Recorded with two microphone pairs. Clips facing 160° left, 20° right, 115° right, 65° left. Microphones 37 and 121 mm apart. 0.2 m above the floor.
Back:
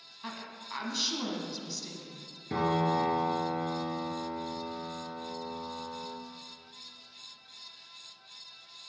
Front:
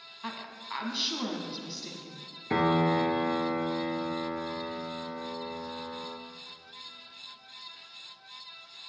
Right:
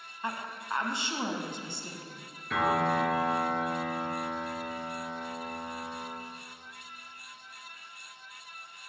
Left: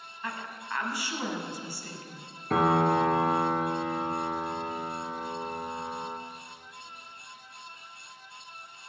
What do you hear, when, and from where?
0.2 s a woman speaking: 85° right, 1.1 m
2.5 s a piano: 20° left, 0.9 m